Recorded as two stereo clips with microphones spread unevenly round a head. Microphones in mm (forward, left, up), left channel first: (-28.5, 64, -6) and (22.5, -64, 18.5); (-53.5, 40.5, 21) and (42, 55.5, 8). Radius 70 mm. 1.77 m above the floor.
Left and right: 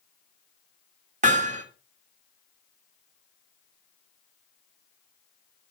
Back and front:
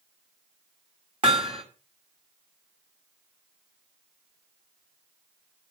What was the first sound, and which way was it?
Hammering, 50° right.